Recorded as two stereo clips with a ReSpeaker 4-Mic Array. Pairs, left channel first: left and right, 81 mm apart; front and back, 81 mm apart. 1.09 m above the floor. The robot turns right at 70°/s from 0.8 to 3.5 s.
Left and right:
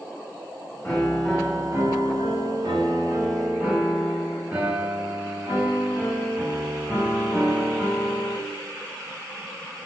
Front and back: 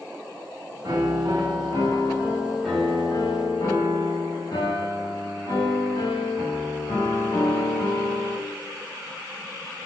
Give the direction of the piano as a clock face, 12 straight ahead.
7 o'clock.